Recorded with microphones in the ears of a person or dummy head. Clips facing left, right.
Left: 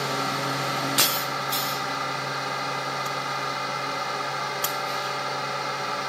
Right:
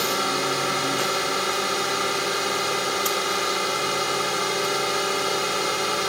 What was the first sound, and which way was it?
A drone, 45° right (ahead or behind).